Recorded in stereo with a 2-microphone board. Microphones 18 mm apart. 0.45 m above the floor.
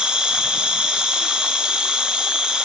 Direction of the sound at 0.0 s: 70° right (ahead or behind).